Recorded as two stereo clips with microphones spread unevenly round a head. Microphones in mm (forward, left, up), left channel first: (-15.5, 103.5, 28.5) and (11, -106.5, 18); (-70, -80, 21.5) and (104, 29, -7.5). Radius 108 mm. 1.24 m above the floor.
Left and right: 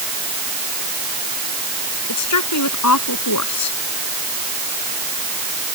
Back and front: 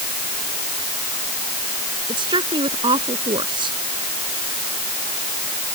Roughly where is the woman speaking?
Left.